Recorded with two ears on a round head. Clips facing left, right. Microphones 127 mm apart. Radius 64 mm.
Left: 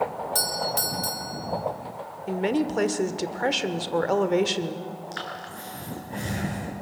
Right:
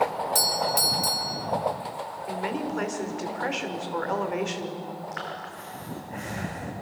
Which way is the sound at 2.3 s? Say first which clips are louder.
Left 6 dB; 40° left (ahead or behind).